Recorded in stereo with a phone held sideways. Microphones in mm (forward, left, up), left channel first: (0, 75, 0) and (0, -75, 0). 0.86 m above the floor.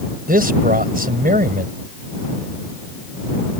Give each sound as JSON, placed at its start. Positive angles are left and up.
{"t": 0.3, "sound": "a man speaking", "side_deg": -80}